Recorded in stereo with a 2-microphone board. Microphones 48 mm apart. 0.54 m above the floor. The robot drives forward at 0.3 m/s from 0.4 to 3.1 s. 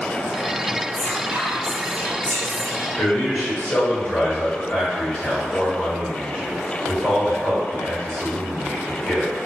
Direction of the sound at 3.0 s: 10° left (ahead or behind).